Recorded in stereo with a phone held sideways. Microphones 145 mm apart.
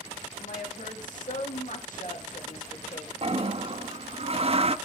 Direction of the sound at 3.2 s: 45° right (ahead or behind).